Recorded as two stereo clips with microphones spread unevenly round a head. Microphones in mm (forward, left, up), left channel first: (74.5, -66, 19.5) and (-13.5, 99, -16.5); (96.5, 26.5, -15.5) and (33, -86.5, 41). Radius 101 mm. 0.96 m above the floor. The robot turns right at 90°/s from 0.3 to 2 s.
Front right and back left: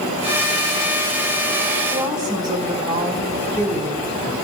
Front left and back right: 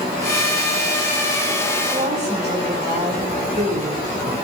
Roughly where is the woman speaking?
Behind.